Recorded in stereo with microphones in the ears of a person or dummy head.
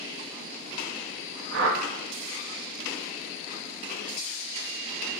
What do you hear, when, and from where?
1.5 s a whoosh: 65° right (ahead or behind), 0.6 m